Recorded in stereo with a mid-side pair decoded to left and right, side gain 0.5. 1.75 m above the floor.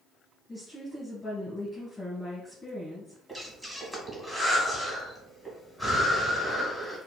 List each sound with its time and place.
0.5 s a woman speaking: 5° left, 1.6 m
3.3 s breathing: 15° right, 1.6 m